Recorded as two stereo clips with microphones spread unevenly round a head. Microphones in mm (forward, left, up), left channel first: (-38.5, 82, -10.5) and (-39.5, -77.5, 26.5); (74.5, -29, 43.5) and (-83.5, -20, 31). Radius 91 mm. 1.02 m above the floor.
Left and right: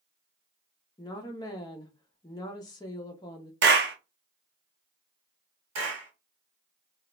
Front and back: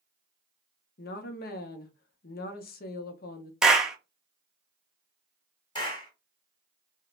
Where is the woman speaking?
30° left, 0.5 m.